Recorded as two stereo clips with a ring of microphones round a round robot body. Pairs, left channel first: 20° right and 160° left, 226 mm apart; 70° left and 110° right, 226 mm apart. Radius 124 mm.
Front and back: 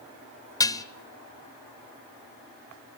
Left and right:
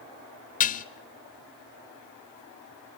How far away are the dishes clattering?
About 0.9 m.